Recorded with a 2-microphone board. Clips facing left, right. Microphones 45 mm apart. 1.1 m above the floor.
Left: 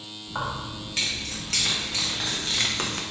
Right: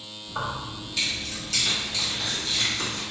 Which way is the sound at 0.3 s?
50° left (ahead or behind).